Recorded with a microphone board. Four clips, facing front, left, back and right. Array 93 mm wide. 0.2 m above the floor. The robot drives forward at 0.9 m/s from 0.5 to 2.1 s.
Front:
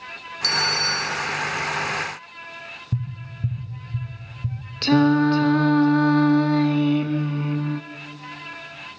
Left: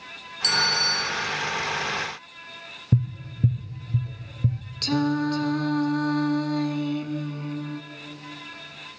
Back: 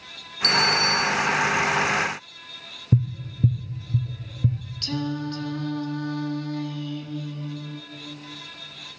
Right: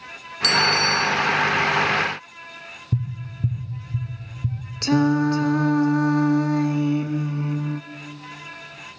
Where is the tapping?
140° left, 2.5 m.